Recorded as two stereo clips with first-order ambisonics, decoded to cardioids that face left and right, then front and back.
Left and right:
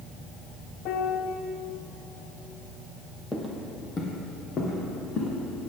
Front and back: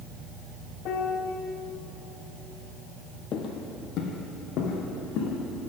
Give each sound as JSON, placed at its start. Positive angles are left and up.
{"t": 0.8, "sound": "a piano", "azimuth_deg": 45, "distance_m": 0.8}
{"t": 3.3, "sound": "footsteps", "azimuth_deg": 10, "distance_m": 1.2}